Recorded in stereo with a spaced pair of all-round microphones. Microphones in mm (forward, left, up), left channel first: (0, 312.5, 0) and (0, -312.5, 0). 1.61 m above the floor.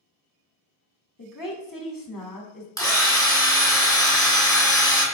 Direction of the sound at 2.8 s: 5° left (ahead or behind).